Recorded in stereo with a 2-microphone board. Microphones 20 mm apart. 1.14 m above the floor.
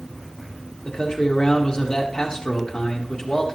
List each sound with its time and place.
0.8 s a man speaking: 40° left (ahead or behind), 1.7 m